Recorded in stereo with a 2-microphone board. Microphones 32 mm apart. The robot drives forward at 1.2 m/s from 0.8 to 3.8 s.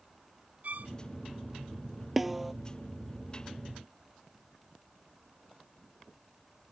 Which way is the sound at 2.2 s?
5° right (ahead or behind).